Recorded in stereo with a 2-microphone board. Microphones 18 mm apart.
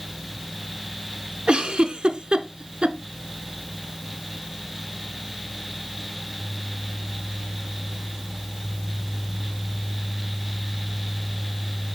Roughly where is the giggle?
Right.